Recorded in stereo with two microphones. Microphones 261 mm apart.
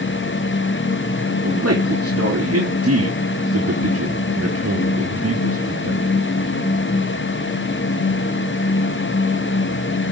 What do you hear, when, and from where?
1.4 s a man speaking: 70° right (ahead or behind), 3.5 m